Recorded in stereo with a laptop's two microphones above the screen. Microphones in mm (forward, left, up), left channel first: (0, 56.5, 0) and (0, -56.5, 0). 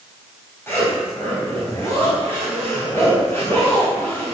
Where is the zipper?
20° left (ahead or behind), 4 m.